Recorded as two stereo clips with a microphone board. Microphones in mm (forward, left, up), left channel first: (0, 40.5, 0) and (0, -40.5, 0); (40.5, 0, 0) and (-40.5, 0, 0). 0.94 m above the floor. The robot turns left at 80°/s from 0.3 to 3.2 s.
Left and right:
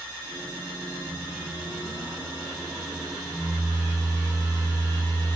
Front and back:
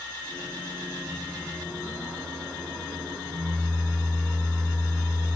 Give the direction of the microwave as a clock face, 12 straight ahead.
1 o'clock.